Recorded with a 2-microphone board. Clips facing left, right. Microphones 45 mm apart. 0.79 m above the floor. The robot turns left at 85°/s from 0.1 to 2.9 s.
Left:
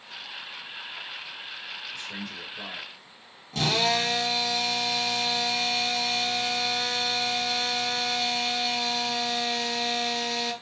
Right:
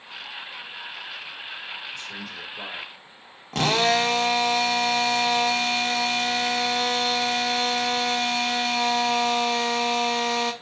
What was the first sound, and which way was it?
A man speaking, 15° left.